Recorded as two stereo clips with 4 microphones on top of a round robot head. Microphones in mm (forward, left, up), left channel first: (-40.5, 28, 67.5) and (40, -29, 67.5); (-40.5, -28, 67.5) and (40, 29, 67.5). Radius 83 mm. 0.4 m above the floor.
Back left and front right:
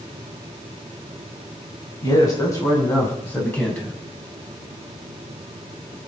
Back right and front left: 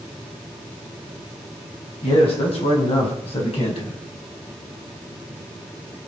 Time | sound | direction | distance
2.0 | a man speaking | 165° right | 5.5 m